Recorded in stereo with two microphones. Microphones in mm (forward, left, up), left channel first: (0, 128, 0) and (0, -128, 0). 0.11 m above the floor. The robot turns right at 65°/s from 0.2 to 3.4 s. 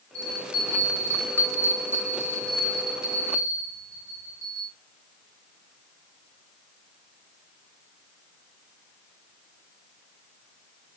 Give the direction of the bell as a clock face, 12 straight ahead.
9 o'clock.